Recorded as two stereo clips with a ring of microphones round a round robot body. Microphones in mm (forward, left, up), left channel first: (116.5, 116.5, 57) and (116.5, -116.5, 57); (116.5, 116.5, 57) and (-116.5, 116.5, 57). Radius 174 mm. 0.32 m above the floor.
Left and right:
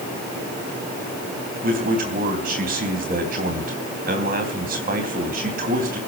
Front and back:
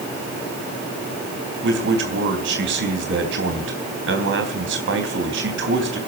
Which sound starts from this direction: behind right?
A man speaking, at 1.6 s.